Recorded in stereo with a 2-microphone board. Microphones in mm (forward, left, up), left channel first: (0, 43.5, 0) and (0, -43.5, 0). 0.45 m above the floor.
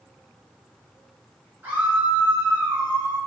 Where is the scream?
20° right (ahead or behind), 2.5 m.